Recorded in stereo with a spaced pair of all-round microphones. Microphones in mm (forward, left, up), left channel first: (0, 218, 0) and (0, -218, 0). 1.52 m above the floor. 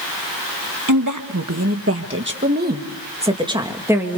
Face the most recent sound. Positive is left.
turn(degrees=-5)  # may be behind; listen again after turning